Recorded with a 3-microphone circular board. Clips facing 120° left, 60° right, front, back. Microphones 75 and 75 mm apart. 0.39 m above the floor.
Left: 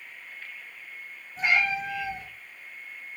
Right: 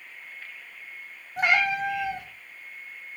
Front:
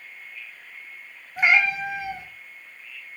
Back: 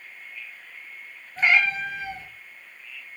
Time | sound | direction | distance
1.4 | a cat meowing | 75° right | 0.8 m